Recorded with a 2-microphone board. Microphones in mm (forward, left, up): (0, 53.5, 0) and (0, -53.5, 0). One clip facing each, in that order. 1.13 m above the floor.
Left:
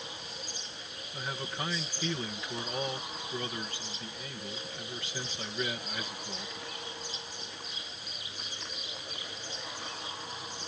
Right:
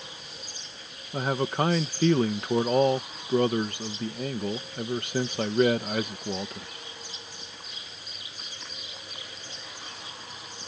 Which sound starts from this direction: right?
A man speaking, at 1.1 s.